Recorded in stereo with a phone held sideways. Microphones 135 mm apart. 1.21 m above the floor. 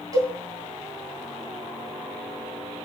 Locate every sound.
0.1 s a cowbell: 30° right (ahead or behind), 2.5 m